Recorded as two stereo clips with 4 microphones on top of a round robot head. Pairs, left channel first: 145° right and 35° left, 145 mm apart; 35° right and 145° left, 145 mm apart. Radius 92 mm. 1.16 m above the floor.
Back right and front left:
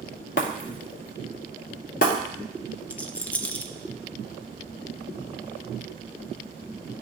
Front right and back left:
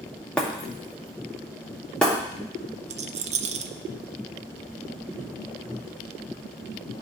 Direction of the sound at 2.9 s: 135° left.